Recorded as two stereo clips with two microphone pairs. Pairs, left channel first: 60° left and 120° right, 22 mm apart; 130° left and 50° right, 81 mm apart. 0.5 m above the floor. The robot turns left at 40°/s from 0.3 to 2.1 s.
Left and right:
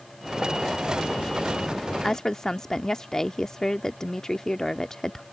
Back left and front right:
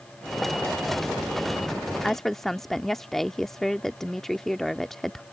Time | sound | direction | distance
2.0 | a woman speaking | 50° left | ?